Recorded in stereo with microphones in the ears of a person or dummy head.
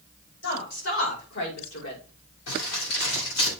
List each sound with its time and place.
0.4 s a woman speaking: 65° left (ahead or behind), 4 m; by 2.0 s 75° left (ahead or behind), 4.5 m
2.5 s crumpling: 80° left, 5.5 m